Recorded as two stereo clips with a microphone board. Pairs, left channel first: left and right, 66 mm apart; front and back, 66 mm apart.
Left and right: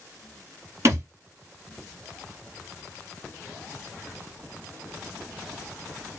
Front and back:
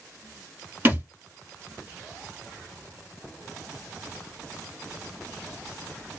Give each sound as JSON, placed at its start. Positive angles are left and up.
{"t": 0.8, "sound": "a thud", "azimuth_deg": -120, "distance_m": 1.2}